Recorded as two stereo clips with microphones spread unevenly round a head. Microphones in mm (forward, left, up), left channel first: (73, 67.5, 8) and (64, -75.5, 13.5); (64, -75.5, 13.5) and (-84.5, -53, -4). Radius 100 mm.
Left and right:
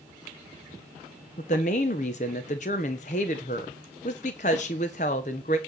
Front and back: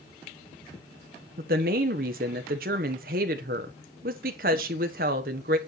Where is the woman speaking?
135° left, 1.3 m.